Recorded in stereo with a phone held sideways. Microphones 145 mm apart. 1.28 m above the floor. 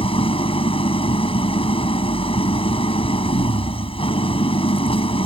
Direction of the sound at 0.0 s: 35° left (ahead or behind).